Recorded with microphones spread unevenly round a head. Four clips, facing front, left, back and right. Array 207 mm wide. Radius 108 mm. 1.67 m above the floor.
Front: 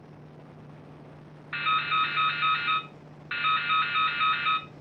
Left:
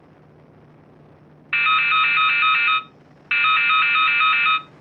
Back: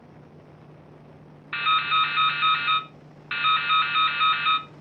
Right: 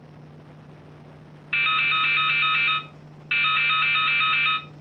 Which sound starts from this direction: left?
Dripping, at 1.5 s.